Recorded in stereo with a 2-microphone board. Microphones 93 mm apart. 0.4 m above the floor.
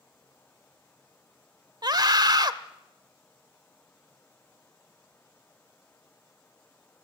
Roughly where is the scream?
Right.